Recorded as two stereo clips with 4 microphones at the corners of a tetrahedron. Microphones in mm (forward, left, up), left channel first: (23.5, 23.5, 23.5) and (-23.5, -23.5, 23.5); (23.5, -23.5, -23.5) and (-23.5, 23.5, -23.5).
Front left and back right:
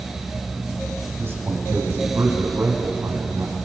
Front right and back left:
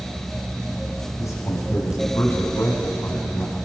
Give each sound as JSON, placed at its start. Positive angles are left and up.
{"t": 1.2, "sound": "a man speaking", "azimuth_deg": -80, "distance_m": 6.5}